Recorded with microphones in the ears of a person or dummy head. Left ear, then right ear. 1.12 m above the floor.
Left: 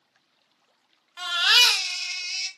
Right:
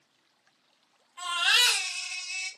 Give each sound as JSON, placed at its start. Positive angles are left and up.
{"t": 1.2, "sound": "a baby crying", "side_deg": 55, "distance_m": 0.7}